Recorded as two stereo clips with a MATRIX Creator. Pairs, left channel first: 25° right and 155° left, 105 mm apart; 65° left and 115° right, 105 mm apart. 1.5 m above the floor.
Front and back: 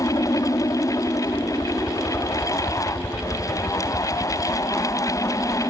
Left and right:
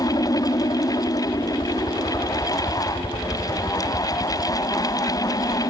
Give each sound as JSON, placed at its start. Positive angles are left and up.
{"t": 0.0, "sound": "a helicopter", "azimuth_deg": 25}